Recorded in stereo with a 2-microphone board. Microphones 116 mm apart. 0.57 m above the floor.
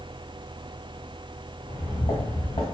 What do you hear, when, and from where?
1.6 s footsteps: 55° left (ahead or behind), 1.9 m